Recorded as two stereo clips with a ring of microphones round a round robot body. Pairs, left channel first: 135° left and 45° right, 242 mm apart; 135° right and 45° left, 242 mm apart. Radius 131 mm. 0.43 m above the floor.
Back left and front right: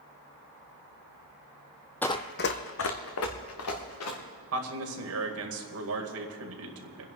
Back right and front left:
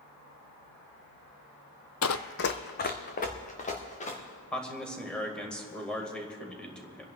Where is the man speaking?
50° right, 2 m.